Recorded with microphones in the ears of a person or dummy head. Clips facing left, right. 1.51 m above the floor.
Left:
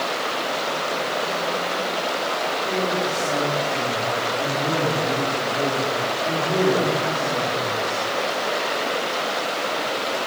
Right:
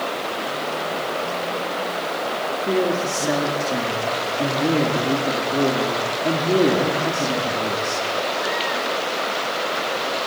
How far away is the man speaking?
About 4.5 m.